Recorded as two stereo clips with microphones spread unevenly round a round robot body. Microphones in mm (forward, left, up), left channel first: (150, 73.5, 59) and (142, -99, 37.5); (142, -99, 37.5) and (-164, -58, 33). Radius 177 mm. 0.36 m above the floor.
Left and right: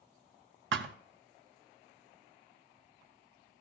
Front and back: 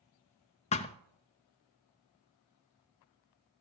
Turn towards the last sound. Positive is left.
turn(degrees=-80)